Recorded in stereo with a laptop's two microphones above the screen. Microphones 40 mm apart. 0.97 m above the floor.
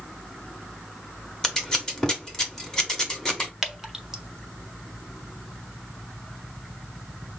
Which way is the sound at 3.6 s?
15° right (ahead or behind).